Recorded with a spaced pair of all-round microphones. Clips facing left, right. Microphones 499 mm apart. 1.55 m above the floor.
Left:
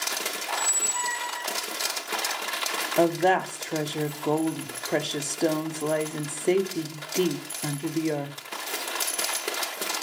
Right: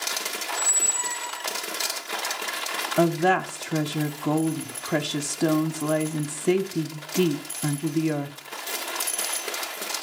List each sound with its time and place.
0.5 s a squeak: 15° left (ahead or behind), 0.6 m
3.0 s a woman speaking: 30° right (ahead or behind), 0.6 m